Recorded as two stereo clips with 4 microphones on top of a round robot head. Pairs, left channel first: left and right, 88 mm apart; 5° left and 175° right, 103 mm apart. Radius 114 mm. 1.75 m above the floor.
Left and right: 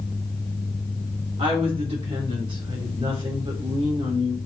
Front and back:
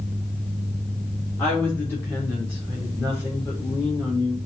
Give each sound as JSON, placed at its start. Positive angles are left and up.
{"t": 1.4, "sound": "a woman speaking", "azimuth_deg": -70, "distance_m": 4.0}